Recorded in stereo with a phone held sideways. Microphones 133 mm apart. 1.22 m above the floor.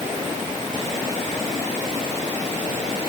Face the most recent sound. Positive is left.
No sound to turn to.